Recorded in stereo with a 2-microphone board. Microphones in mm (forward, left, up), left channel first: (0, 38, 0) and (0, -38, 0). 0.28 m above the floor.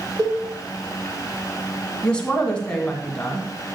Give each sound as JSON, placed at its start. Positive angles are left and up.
{"t": 0.2, "sound": "a cowbell", "side_deg": -80, "distance_m": 6.0}
{"t": 2.0, "sound": "a woman speaking", "side_deg": 15, "distance_m": 2.0}